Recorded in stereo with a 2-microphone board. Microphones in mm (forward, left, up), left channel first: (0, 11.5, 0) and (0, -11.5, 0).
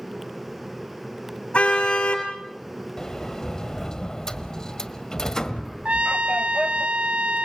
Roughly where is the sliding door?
Left.